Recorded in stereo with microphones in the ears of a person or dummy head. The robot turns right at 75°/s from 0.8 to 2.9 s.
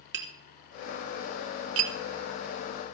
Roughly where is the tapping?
Right.